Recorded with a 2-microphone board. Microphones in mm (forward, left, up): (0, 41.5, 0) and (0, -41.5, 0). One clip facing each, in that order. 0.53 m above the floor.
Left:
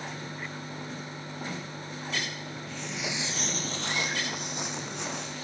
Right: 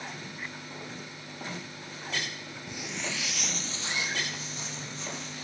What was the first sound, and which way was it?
Footsteps, 20° right (ahead or behind).